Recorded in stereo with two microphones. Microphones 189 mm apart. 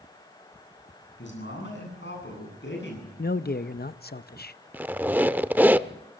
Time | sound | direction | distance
1.2 | a man speaking | 80° left | 9.5 m
3.2 | a man speaking | 55° left (ahead or behind) | 0.7 m
4.7 | a squeak | 10° right (ahead or behind) | 0.6 m